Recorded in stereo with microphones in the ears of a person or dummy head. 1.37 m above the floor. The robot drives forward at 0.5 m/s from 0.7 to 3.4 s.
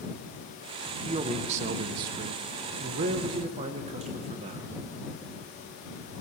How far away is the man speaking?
About 0.8 m.